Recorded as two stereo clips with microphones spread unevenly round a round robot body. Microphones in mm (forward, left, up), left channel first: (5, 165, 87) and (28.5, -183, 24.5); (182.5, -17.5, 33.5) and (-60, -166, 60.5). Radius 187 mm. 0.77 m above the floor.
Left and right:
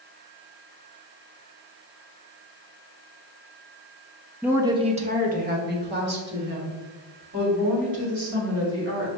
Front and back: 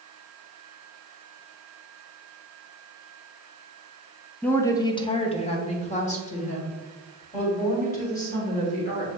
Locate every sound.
4.4 s a woman speaking: 35° right, 0.6 m; by 9.1 s 30° right, 3.5 m